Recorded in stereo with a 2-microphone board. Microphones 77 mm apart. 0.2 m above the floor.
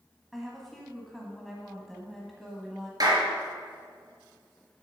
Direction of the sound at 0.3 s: Centre (ahead or behind).